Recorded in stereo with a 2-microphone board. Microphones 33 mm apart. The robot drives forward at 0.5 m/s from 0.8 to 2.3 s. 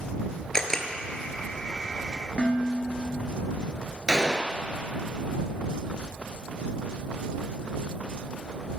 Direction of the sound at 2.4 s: 35° left (ahead or behind).